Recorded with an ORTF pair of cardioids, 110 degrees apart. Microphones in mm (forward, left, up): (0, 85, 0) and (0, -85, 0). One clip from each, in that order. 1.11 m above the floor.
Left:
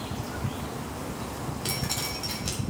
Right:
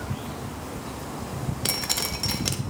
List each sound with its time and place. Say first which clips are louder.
1.6 s dripping: right 5 dB; 40° right, 0.9 m